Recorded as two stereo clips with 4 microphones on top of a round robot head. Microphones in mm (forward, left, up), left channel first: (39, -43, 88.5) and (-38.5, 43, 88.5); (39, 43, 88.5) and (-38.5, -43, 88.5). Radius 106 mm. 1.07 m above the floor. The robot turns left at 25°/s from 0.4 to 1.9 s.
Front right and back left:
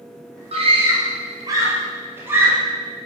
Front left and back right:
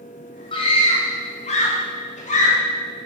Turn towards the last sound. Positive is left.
turn(degrees=60)